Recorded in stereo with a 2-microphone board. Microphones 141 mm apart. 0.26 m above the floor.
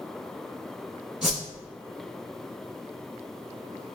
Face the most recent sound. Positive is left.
turn(degrees=-5)  # may be behind; listen again after turning